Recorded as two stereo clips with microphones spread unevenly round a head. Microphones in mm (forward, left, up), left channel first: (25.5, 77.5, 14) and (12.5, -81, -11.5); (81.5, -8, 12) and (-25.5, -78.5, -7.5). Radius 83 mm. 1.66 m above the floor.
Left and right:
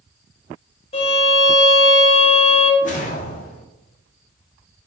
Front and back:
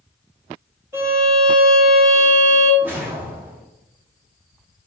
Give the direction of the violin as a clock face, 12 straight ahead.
8 o'clock.